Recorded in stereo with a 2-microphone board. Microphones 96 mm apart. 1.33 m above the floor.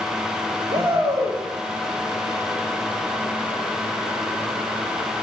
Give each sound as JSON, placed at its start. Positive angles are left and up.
{"t": 0.7, "sound": "a shout", "side_deg": -50, "distance_m": 3.0}